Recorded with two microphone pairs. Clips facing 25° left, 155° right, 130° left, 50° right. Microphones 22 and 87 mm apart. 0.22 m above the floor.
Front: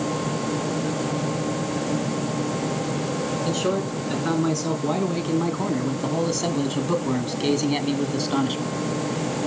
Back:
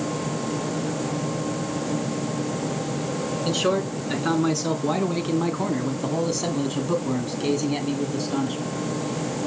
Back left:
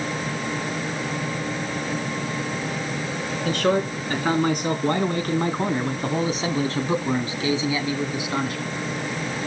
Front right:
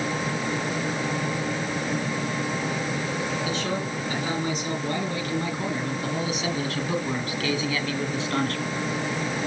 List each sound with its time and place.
3.5 s a man speaking: 135° left, 3 m; by 8.7 s 50° left, 2.5 m